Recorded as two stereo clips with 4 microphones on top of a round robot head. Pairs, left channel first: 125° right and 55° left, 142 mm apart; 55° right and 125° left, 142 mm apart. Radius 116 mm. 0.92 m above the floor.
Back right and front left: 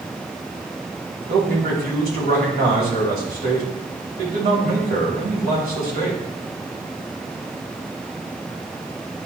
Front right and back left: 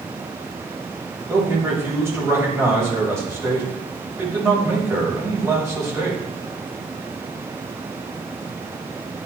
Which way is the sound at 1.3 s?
55° left.